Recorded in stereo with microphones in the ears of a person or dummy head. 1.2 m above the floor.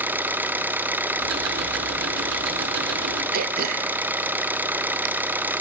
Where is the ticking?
80° right, 3 m.